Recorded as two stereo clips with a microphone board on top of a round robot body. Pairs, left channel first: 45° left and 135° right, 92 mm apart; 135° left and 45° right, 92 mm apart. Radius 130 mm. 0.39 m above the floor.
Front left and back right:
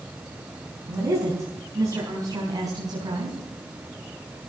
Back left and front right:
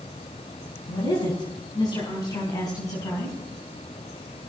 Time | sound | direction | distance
0.9 | a woman speaking | 170° left | 5.5 m